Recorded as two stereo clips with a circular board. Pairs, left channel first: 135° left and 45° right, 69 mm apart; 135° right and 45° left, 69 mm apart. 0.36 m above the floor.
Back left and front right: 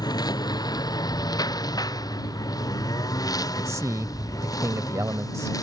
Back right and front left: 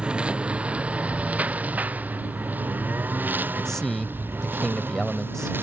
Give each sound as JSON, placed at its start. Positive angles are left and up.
{"t": 0.0, "sound": "a lawn mower", "azimuth_deg": 120}
{"t": 3.6, "sound": "a man speaking", "azimuth_deg": -55}